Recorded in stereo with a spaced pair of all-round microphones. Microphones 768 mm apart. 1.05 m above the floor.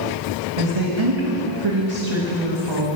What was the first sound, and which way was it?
A woman speaking, 40° right (ahead or behind).